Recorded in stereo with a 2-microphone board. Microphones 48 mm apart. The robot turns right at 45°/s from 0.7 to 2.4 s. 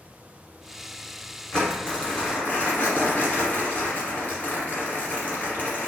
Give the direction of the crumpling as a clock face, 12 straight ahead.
11 o'clock.